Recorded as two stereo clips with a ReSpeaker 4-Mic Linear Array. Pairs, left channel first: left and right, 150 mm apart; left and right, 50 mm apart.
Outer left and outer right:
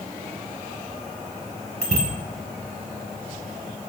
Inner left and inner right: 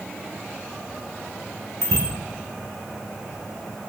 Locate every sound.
1.8 s a bicycle bell: 85° left, 6 m